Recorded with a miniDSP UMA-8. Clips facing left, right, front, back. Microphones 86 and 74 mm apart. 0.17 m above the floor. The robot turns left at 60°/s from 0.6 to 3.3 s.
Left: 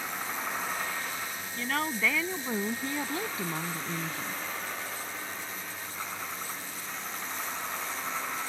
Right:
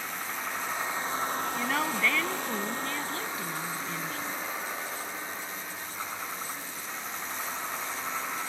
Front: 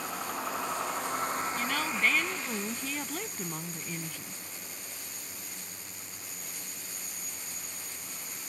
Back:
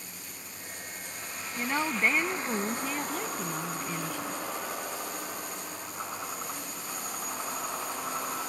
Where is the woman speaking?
165° right; by 4.4 s 95° left.